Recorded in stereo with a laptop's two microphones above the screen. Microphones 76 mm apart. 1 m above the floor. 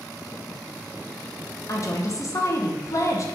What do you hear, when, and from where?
1.7 s a woman speaking: 45° left (ahead or behind), 0.5 m